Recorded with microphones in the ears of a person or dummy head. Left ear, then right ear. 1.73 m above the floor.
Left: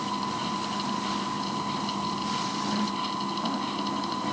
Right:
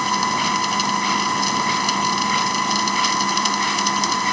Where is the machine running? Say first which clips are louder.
Right 11 dB; 70° right (ahead or behind).